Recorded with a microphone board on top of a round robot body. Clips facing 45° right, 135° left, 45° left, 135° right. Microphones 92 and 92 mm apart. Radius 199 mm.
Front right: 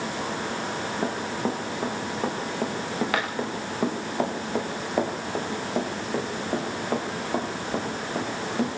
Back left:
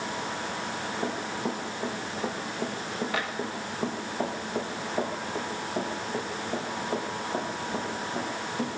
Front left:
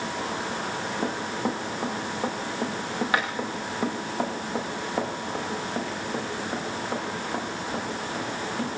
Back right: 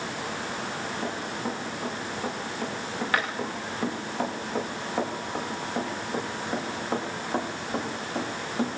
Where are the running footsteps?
15° right, 7 m; by 8.7 s 60° right, 8 m.